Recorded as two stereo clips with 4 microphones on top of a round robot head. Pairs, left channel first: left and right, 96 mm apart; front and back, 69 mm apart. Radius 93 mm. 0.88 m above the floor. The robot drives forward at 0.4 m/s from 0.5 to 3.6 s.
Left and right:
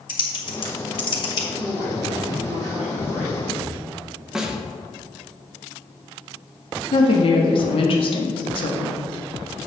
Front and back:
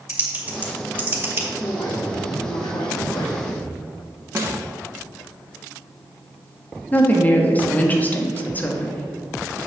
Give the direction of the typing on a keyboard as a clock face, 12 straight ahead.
8 o'clock.